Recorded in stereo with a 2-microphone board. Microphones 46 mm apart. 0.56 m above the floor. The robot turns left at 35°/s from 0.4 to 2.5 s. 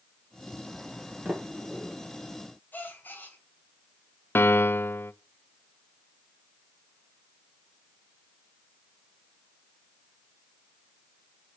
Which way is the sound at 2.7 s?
45° left (ahead or behind).